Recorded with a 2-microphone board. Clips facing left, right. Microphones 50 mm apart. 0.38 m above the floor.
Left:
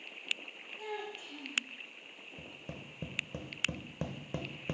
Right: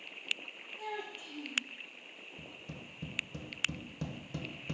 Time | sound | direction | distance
0.8 | a child speaking | 5° right (ahead or behind) | 4 m
2.4 | tapping | 35° left (ahead or behind) | 0.9 m